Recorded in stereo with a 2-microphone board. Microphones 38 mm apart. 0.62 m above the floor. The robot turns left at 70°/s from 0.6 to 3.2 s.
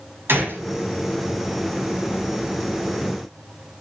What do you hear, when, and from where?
0.3 s a gunshot: 75° right (ahead or behind), 4.5 m; by 0.7 s 70° right (ahead or behind), 4.5 m